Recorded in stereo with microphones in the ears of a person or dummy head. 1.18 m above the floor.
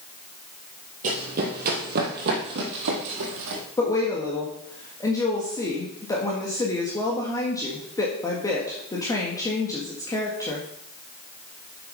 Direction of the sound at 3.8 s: 20° left (ahead or behind).